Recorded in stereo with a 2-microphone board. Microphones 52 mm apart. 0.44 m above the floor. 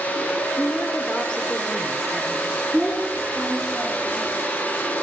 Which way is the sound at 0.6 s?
20° left (ahead or behind).